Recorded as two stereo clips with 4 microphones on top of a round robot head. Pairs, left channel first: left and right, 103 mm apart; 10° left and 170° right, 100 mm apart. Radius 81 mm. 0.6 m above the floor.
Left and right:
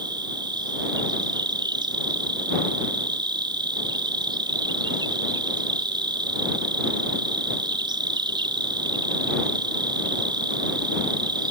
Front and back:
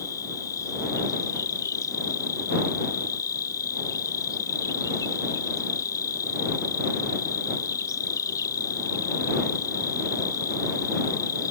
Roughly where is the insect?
Ahead right.